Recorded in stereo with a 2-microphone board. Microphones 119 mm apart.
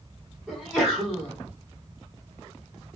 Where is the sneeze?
Centre (ahead or behind), 1.8 m.